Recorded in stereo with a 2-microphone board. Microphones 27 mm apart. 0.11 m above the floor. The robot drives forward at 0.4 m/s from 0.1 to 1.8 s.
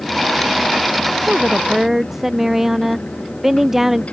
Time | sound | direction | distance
1.3 | a woman speaking | 5° right (ahead or behind) | ?